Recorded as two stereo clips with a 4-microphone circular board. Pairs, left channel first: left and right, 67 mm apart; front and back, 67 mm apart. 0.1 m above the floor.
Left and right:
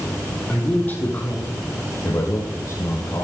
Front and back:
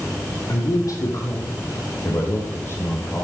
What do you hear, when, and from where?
0.5 s a man speaking: 25° left, 4 m; by 3.2 s 55° left, 5 m